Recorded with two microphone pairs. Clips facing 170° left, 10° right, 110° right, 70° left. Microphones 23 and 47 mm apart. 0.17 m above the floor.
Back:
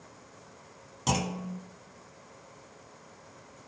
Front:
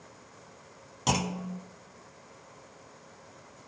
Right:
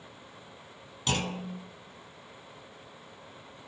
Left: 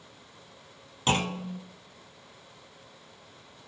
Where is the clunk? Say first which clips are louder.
Front 1 dB, left 4 dB; 65° left, 0.6 m.